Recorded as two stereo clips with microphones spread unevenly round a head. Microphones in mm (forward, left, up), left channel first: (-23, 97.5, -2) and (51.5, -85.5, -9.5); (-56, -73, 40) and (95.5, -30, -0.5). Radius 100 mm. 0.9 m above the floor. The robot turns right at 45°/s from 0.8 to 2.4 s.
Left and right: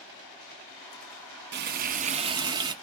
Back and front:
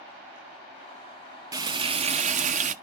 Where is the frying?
40° right, 0.6 m; by 2.7 s straight ahead, 0.6 m.